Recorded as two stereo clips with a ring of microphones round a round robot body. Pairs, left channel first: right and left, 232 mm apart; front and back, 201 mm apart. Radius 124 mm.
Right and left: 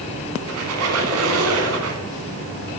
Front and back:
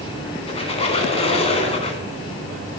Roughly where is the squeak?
Ahead left.